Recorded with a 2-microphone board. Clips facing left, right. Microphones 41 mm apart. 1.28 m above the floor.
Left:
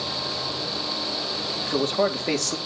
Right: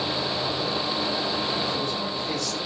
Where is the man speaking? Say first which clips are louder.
Left 5 dB; 65° left (ahead or behind), 3 m.